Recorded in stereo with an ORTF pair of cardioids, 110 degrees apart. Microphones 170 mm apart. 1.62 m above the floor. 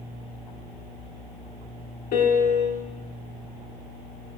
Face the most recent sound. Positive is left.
turn(degrees=60)